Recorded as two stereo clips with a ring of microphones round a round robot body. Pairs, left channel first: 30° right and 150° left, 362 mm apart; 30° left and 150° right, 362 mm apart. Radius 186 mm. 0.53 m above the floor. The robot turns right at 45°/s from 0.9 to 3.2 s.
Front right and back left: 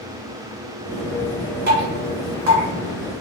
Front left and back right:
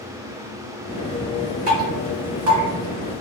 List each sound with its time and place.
1.7 s dripping: 140° left, 1.9 m; by 2.6 s straight behind, 1.9 m